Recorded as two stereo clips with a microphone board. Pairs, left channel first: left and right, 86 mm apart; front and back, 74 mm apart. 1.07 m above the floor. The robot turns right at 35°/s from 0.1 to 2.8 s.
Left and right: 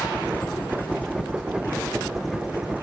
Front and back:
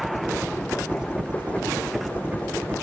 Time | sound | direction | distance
0.0 | a helicopter | 95° left | ?